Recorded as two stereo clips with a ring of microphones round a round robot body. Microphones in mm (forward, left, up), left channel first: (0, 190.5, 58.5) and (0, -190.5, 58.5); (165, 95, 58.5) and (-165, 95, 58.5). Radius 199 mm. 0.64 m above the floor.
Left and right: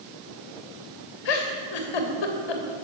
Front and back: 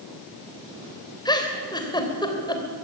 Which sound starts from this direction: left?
A giggle, at 1.2 s.